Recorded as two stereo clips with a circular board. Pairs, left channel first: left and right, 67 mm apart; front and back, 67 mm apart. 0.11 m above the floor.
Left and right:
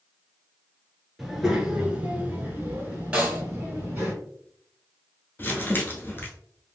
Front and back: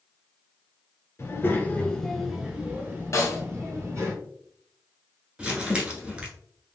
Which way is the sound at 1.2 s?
5° right.